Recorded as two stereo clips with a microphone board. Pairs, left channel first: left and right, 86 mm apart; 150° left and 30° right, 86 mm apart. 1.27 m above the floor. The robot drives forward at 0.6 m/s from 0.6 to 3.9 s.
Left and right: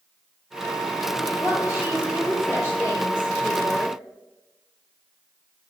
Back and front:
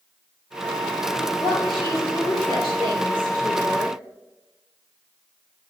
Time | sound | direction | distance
1.4 | a woman speaking | 140° left | 4.5 m